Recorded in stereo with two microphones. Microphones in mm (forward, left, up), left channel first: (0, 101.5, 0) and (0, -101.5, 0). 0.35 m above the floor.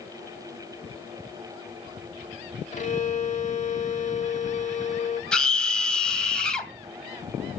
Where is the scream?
5° left (ahead or behind), 2.5 m.